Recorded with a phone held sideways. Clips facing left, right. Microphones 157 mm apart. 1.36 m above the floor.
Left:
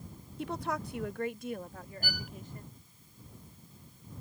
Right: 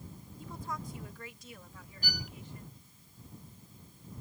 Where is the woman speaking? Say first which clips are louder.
Left 7 dB; 75° left (ahead or behind); by 2.8 s 45° left (ahead or behind).